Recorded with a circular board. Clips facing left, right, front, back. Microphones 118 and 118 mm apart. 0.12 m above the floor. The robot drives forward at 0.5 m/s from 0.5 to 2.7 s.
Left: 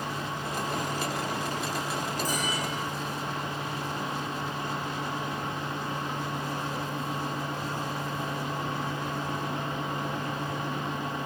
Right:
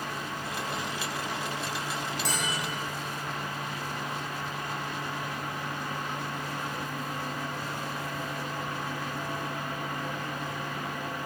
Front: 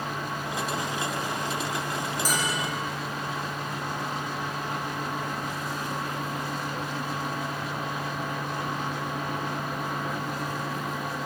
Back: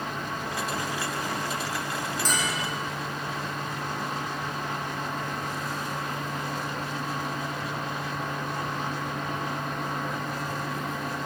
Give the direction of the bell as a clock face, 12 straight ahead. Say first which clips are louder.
Left 2 dB, front 1 dB; 3 o'clock.